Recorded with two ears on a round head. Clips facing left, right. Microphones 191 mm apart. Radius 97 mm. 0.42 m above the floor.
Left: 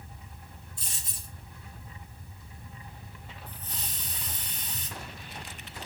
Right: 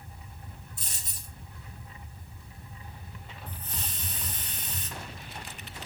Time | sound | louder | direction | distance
0.8 | a dropped coin | even | 40° right (ahead or behind) | 1.8 m
3.5 | a hiss | right 3 dB | 45° right (ahead or behind) | 1.1 m